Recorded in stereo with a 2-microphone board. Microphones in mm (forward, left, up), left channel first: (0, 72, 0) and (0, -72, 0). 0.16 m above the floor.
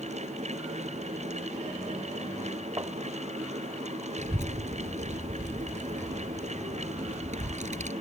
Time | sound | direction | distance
2.8 | tapping | 25° right (ahead or behind) | ?
4.2 | a child speaking | 60° right (ahead or behind) | ?